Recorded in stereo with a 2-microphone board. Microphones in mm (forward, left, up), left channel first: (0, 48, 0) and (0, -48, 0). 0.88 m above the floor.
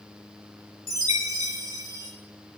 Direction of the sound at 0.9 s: 40° right (ahead or behind).